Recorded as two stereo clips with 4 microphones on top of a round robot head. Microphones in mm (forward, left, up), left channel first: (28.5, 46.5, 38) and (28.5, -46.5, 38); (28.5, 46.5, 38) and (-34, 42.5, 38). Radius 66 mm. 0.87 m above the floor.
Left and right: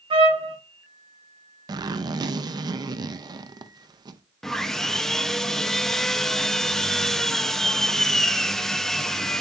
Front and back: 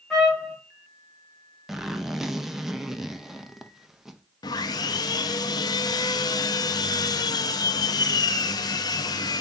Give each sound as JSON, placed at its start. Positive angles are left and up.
{"t": 0.1, "sound": "a trumpet", "azimuth_deg": -80, "distance_m": 1.8}
{"t": 1.7, "sound": "a zipper", "azimuth_deg": -90, "distance_m": 0.5}
{"t": 4.4, "sound": "sawing", "azimuth_deg": 5, "distance_m": 0.6}